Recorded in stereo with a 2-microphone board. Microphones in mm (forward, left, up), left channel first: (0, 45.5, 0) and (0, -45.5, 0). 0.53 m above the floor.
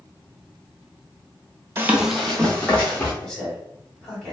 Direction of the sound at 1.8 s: 25° right (ahead or behind).